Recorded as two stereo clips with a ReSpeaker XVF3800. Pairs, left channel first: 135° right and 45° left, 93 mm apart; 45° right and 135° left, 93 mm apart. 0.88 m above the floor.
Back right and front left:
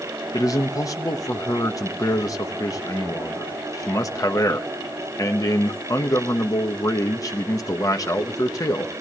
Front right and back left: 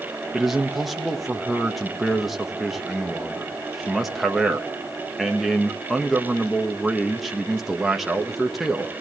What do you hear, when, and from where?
0.3 s a man speaking: 140° right, 1.2 m